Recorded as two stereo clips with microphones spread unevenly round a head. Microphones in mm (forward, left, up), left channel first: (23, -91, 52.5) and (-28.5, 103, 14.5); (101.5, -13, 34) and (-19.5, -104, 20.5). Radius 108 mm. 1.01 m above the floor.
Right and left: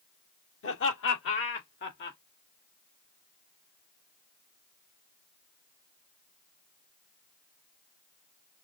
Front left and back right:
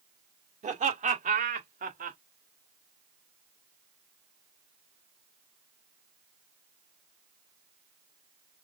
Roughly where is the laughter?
Right.